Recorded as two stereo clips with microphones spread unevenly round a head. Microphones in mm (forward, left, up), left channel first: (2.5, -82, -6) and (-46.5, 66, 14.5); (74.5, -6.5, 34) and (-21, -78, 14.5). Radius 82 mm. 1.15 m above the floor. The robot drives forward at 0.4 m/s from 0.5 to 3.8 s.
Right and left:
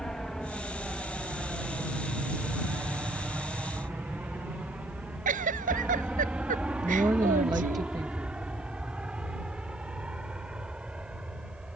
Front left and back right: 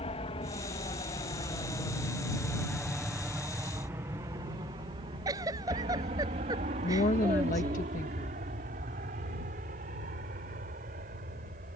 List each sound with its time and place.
0.0 s an aircraft: 15° left; by 11.8 s 165° right
5.2 s a giggle: 145° left
6.8 s a woman speaking: 40° left